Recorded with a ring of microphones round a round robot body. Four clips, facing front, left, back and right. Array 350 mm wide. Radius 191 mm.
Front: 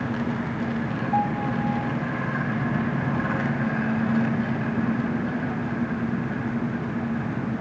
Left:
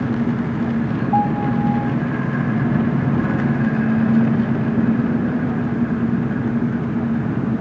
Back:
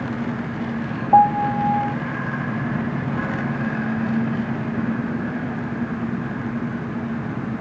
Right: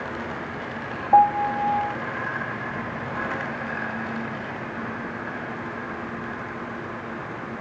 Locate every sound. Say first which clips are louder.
0.0 s an engine running: left 11 dB, back 1 dB; 95° left
1.1 s a piano: right 3 dB, back 11 dB; 150° right